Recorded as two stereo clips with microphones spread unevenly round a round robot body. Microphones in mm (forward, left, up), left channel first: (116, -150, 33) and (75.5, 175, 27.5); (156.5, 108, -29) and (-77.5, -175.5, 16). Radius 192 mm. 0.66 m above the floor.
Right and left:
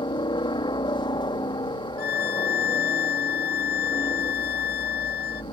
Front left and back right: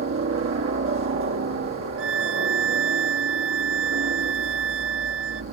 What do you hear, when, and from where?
0.0 s a helicopter: 145° right
2.0 s a violin: 75° right